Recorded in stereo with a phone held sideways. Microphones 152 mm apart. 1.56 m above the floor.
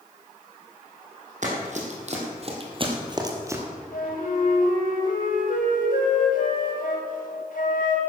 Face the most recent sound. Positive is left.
turn(degrees=70)  # may be behind; listen again after turning